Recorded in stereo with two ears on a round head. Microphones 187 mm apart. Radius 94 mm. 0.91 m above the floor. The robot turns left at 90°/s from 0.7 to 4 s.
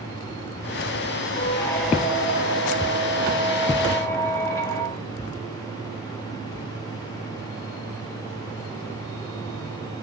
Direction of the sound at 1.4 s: 45° left.